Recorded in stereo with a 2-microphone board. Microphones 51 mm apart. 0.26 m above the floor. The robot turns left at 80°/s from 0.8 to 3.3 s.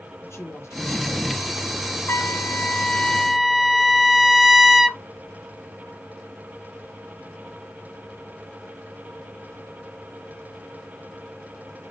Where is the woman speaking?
95° left, 3 m; by 2.8 s 65° right, 3 m.